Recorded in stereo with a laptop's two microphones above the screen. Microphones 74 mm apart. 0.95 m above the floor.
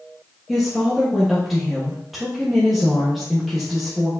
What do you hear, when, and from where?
0.5 s a woman speaking: centre (ahead or behind), 1.1 m